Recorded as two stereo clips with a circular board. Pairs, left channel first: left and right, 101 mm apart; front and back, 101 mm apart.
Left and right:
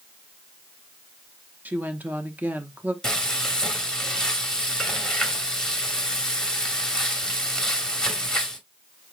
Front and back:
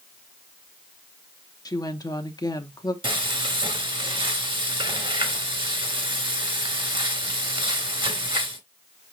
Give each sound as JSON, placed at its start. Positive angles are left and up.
{"t": 1.6, "sound": "a woman speaking", "azimuth_deg": -25, "distance_m": 0.8}
{"t": 3.0, "sound": "frying", "azimuth_deg": 170, "distance_m": 1.5}